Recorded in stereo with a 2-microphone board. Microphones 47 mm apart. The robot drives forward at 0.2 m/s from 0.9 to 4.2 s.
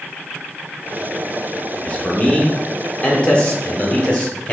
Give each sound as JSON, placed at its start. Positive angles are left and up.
{"t": 1.8, "sound": "a man speaking", "side_deg": 30, "distance_m": 0.9}